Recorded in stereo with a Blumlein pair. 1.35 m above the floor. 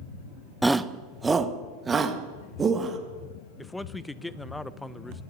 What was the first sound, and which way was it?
A shout, 5° right.